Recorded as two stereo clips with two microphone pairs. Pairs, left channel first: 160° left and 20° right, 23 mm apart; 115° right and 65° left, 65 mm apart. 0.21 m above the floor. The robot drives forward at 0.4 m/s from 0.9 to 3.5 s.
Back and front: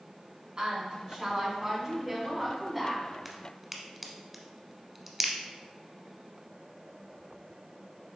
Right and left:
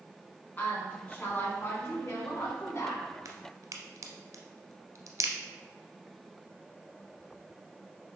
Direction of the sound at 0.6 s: 65° right.